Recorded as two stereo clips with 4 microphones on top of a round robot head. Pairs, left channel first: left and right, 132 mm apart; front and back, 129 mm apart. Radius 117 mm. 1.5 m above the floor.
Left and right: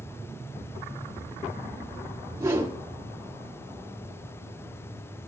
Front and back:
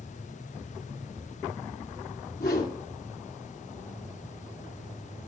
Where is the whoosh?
25° right, 1.7 m.